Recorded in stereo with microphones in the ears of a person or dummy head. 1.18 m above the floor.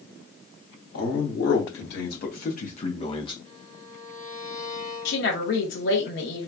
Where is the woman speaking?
65° left (ahead or behind), 1.3 m.